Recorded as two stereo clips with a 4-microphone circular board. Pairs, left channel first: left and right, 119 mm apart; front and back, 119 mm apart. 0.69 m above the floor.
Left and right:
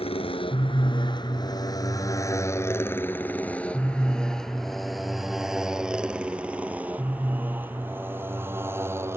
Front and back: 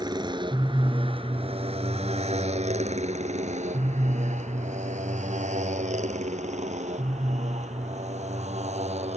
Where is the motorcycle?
125° left; by 9.2 s 160° right.